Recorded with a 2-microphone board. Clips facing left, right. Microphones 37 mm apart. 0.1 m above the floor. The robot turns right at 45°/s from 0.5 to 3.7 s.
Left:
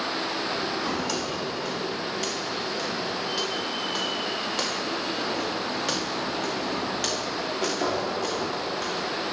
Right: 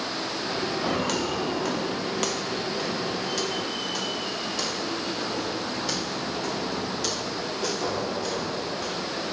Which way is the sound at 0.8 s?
35° right (ahead or behind).